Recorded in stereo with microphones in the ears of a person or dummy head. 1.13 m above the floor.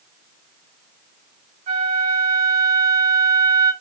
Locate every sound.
1.7 s a flute: 45° right (ahead or behind), 1.3 m